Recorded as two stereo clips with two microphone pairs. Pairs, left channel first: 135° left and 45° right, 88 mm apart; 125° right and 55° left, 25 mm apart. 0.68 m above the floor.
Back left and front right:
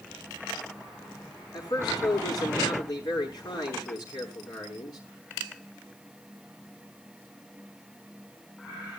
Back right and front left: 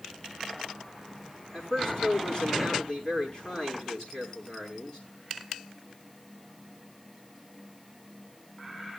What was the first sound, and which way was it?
A man speaking, straight behind.